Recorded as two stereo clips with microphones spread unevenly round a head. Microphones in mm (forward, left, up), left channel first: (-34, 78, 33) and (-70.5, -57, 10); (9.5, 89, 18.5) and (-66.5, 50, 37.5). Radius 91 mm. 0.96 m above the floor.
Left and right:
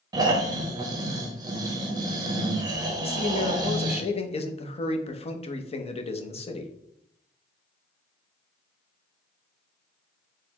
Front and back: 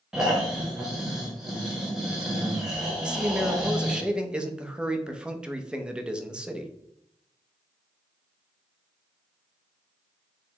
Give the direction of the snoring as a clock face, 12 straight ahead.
2 o'clock.